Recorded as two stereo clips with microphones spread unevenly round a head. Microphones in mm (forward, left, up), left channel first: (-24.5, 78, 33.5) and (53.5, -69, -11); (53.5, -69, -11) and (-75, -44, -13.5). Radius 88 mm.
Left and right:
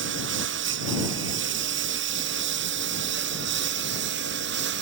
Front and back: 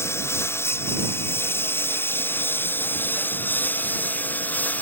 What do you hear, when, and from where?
0.0 s a lawn mower: 80° right; by 4.8 s 90° right